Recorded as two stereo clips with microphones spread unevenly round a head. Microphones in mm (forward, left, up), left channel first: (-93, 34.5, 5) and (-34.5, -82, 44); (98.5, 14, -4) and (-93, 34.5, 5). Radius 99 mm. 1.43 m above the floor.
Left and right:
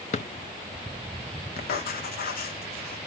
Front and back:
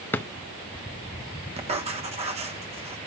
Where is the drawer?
70° left, 0.7 m.